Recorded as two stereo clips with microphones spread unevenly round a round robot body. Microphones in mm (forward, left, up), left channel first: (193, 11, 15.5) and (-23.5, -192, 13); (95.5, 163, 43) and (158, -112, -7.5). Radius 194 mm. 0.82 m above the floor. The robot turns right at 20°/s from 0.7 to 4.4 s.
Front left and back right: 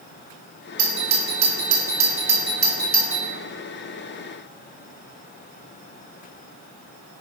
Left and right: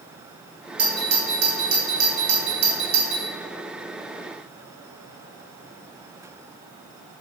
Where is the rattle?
No rattle in this recording.